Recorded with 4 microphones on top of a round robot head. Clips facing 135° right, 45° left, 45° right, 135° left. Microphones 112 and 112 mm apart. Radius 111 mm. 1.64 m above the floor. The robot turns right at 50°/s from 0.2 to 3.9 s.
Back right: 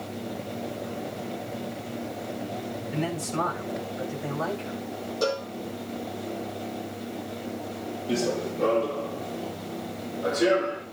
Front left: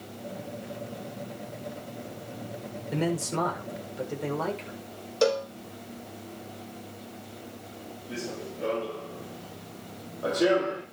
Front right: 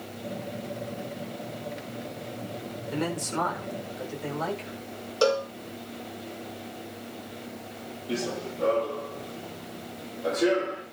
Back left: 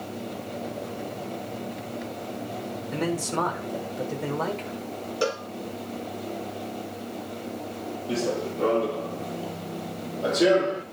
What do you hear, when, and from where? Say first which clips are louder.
2.9 s a man speaking: front left 2 dB, back left 2 dB; 40° left, 7.5 m; by 4.8 s 90° left, 7.5 m
5.2 s a cowbell: front left 4 dB, front right 5 dB; 20° left, 1.1 m
8.1 s running footsteps: back right 10 dB, back left 4 dB; 160° right, 2.5 m; by 10.8 s 115° left, 3.5 m